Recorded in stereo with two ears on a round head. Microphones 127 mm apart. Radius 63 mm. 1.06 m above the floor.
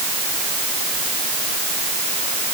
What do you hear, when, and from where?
Only background noise.